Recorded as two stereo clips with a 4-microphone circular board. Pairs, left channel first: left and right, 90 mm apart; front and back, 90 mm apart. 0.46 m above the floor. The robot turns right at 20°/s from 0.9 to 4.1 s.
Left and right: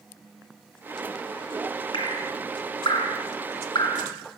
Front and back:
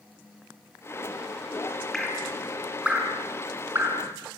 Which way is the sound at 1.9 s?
85° left.